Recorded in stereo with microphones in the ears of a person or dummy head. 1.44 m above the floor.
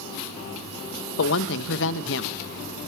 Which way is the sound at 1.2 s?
70° left (ahead or behind).